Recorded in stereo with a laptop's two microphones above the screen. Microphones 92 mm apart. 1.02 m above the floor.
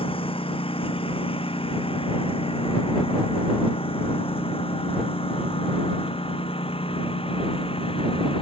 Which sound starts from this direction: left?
A lawn mower, at 0.0 s.